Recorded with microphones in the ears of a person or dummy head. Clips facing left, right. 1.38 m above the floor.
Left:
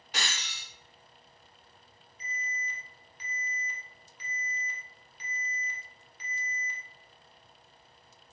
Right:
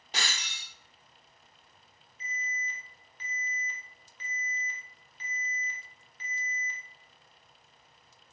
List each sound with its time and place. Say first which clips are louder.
0.1 s breaking glass: even; 20° right (ahead or behind), 2 m
2.2 s an alarm: even; 10° left (ahead or behind), 1.3 m